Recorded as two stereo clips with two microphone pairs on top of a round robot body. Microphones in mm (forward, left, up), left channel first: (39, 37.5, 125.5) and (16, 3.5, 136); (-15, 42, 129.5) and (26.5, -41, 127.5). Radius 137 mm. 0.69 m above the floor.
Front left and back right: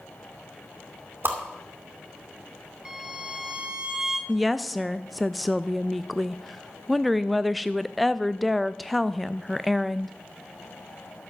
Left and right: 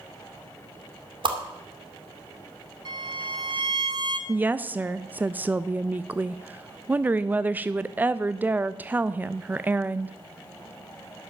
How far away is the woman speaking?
About 0.5 m.